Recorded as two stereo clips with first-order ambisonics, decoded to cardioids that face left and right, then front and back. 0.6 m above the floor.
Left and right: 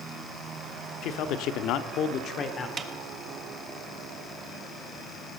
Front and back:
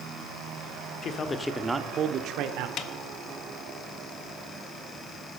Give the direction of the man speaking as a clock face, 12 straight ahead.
10 o'clock.